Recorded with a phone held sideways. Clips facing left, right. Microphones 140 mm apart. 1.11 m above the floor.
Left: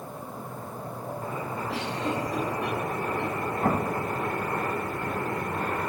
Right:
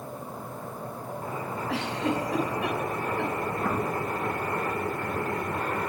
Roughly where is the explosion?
Left.